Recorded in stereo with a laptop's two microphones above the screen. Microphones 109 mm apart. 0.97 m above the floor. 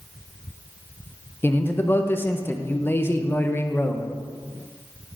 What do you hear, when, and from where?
1.4 s a man speaking: 20° left (ahead or behind), 0.5 m